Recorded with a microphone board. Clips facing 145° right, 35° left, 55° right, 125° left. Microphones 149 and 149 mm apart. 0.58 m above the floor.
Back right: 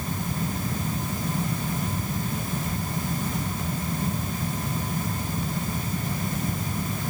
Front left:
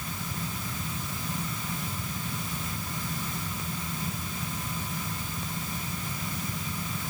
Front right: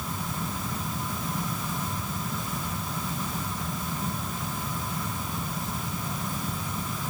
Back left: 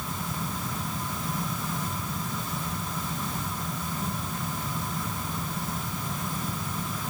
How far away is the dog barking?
I don't hear a dog barking.